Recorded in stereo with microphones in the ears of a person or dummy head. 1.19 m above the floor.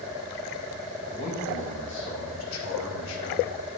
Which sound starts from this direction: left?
A man speaking, at 1.1 s.